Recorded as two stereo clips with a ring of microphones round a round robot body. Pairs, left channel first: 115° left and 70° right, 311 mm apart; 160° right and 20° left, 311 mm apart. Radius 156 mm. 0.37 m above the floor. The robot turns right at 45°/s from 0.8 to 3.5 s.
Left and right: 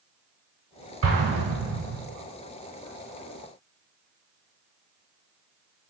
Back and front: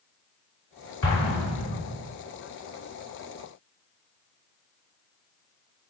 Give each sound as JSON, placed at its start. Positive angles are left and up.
{"t": 1.0, "sound": "an explosion", "azimuth_deg": -105, "distance_m": 0.9}